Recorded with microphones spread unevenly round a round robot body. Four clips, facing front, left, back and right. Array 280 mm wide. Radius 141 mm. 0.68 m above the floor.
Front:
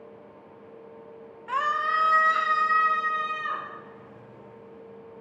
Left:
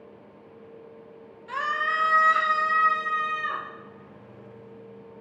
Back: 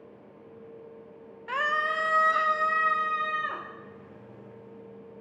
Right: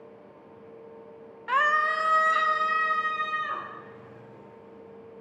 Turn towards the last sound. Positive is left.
turn(degrees=170)